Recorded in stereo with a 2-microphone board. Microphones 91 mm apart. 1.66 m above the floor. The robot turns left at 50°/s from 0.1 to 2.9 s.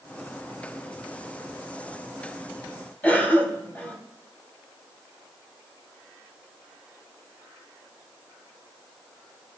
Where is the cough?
20° left (ahead or behind), 2.5 m.